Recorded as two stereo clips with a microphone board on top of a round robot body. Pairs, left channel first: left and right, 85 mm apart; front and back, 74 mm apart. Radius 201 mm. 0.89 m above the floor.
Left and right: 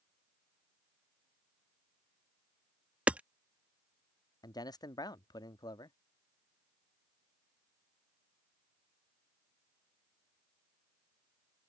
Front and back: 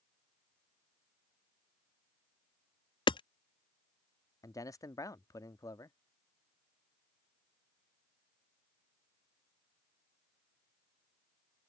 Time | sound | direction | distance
3.1 | hammering | 15° right | ?
4.4 | a man speaking | 45° left | ?